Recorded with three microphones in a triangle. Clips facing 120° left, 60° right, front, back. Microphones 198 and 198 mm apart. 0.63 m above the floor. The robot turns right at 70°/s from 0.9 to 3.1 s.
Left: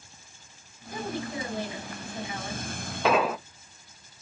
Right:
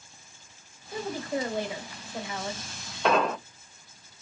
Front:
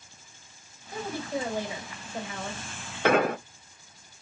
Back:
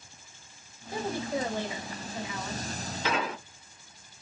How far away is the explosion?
About 0.5 m.